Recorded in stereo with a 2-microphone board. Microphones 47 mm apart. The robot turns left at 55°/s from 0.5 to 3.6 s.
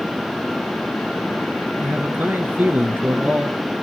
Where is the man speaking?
55° right, 2.0 m; by 3.6 s 155° right, 2.0 m.